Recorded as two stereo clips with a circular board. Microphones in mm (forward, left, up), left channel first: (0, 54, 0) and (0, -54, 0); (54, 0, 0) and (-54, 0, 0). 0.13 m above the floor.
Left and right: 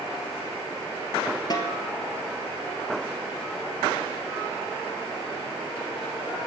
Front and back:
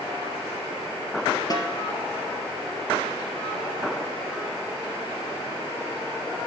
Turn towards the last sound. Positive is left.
turn(degrees=45)